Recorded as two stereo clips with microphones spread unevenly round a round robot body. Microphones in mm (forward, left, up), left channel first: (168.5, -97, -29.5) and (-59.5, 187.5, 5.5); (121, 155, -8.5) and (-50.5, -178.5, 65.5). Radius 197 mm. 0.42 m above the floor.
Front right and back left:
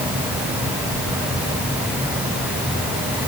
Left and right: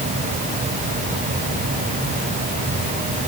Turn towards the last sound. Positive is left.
No sound to turn to.